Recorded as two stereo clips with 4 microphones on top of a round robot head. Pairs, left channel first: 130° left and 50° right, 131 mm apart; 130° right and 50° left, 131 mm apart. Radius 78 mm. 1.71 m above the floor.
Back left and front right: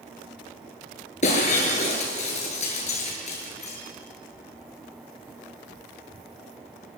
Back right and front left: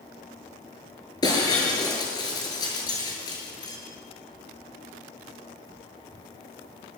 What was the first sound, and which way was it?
Breaking glass, 170° left.